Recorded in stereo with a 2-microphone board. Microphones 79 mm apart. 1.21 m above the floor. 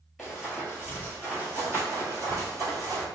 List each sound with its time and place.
0.2 s running footsteps: 5° right (ahead or behind), 1.3 m; by 3.0 s 50° right (ahead or behind), 1.8 m